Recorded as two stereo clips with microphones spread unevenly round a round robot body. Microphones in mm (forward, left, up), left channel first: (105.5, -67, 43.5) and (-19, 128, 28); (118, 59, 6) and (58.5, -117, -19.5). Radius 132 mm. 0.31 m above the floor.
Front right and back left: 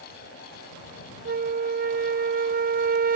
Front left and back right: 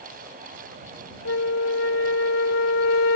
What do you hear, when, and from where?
1.2 s a flute: 70° left